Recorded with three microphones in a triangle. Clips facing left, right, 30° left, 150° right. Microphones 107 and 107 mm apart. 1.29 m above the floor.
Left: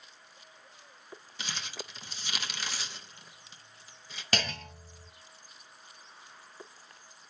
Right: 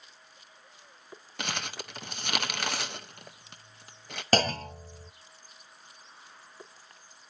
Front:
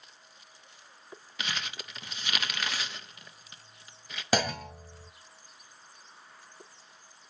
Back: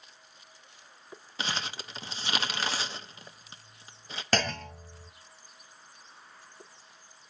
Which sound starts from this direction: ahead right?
A clunk, at 4.3 s.